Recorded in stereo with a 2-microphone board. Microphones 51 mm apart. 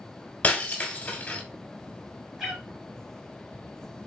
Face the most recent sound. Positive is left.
turn(degrees=-5)  # may be behind; listen again after turning